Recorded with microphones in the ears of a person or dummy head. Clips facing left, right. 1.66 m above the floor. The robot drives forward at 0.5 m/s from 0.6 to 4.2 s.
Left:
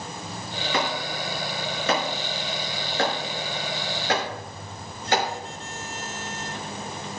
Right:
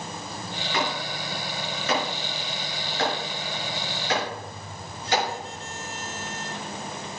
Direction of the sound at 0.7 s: 60° left (ahead or behind).